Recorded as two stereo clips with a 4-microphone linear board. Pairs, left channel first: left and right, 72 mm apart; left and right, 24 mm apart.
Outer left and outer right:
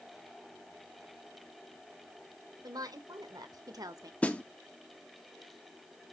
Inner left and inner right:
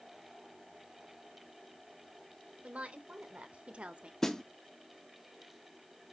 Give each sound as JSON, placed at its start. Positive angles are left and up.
{"t": 2.6, "sound": "a woman speaking", "side_deg": -70, "distance_m": 2.5}
{"t": 4.2, "sound": "a snare drum", "side_deg": 20, "distance_m": 1.0}